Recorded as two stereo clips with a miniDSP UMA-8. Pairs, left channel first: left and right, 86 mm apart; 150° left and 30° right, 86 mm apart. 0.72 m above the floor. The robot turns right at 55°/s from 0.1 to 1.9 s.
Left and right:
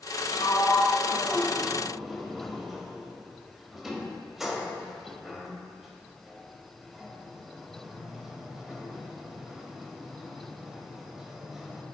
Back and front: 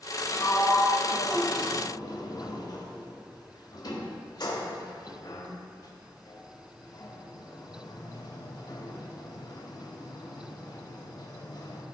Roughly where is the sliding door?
Left.